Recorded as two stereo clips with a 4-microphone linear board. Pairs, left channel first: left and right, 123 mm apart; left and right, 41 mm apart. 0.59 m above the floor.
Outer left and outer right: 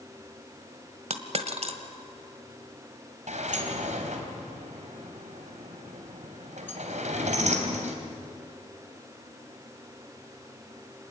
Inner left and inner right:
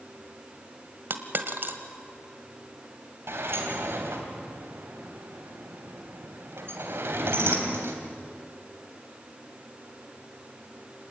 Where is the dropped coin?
55° right (ahead or behind), 1.6 m.